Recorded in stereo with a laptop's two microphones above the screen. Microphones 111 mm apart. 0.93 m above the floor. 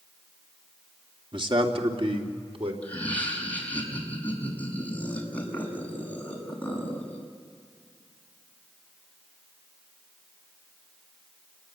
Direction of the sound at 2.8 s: 15° left (ahead or behind).